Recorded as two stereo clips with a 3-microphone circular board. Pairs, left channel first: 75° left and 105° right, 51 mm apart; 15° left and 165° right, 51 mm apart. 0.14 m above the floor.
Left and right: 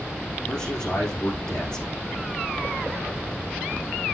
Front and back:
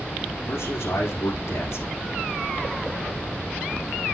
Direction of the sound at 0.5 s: 5° left.